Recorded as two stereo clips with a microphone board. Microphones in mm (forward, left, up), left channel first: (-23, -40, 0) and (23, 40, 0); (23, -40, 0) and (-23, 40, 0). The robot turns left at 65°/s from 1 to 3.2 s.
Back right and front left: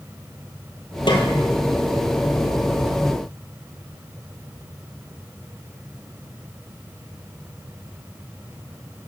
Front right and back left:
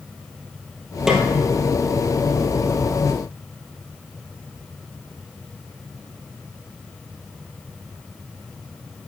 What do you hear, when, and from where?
1.1 s a snare drum: 155° right, 2 m; by 1.2 s 170° right, 2 m